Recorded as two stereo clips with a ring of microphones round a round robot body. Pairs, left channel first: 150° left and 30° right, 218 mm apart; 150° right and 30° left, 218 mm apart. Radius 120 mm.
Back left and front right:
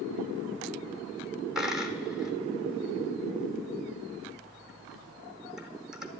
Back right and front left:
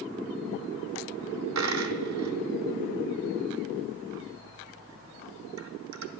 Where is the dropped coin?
55° left, 0.7 m.